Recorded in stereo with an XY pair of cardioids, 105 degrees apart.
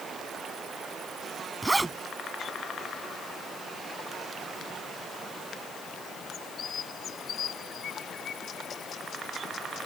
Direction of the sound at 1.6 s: 20° right.